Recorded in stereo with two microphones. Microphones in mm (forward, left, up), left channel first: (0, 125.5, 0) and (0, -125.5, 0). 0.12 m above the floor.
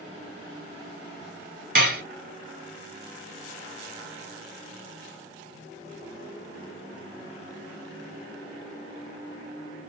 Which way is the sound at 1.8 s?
35° right (ahead or behind).